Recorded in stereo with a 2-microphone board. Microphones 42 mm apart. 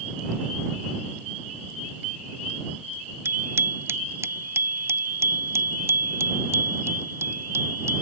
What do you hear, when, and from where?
3.2 s a bicycle bell: 65° right (ahead or behind); by 8.0 s 75° right (ahead or behind)